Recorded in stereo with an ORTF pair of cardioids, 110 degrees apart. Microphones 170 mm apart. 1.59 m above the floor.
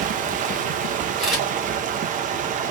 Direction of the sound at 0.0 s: 55° right.